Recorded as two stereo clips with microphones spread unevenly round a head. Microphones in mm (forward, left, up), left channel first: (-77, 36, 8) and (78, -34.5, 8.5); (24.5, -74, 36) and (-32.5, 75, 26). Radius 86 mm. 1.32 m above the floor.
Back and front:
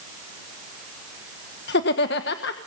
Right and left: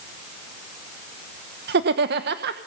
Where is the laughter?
130° left, 1.3 m.